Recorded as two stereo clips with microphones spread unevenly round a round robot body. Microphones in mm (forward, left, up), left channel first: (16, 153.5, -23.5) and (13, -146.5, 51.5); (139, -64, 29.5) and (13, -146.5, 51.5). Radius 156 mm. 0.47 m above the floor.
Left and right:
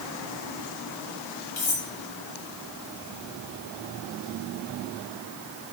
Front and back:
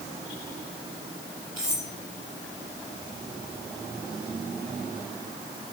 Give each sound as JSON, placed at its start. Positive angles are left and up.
{"t": 1.6, "sound": "cutlery clinking", "azimuth_deg": 135, "distance_m": 6.5}